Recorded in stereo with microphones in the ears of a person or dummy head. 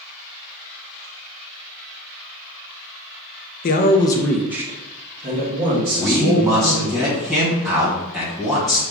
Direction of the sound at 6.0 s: 15° right (ahead or behind).